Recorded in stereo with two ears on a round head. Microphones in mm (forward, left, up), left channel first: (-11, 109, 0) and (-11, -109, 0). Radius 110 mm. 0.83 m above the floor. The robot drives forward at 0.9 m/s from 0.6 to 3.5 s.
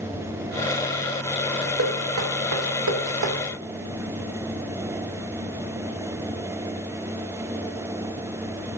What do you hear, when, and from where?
1.8 s knocking: 60° right (ahead or behind), 2 m; by 3.4 s 75° right (ahead or behind), 1.8 m